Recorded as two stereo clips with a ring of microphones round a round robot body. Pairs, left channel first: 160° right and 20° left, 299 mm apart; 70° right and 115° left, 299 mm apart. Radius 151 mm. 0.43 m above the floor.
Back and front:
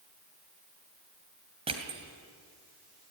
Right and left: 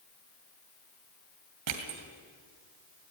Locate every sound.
1.7 s crushing: 95° left, 2.5 m